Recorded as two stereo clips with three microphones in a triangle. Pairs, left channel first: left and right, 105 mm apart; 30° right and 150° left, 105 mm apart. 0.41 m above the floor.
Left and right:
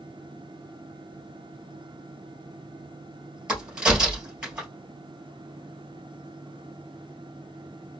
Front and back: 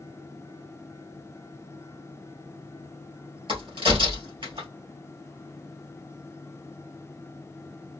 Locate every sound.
3.5 s a crack: 170° right, 2.5 m